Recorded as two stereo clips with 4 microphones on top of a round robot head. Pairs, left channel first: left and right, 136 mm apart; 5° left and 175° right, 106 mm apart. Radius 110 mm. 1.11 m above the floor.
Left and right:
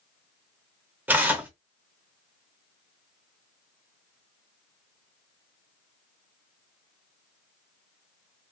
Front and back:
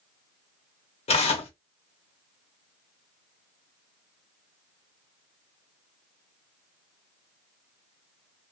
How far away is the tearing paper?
About 1.0 m.